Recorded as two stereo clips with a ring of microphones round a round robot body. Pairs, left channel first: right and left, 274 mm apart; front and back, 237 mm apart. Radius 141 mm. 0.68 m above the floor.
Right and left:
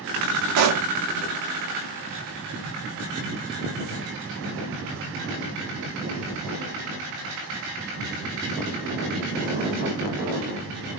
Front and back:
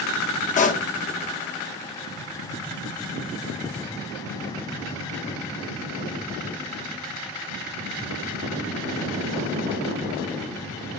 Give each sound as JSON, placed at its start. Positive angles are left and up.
{"t": 0.6, "sound": "a pop", "azimuth_deg": 60, "distance_m": 0.6}